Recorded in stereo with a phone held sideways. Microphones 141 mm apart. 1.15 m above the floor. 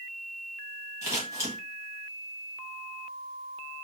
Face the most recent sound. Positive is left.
turn(degrees=-20)  # may be behind; listen again after turning